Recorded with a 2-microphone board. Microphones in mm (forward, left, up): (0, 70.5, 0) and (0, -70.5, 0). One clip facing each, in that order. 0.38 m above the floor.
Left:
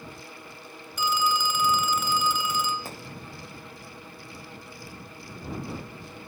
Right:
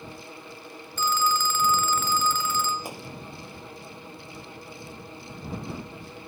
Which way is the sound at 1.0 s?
15° left (ahead or behind).